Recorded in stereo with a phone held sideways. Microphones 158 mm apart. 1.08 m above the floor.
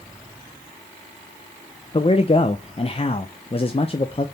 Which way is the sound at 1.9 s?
40° left (ahead or behind).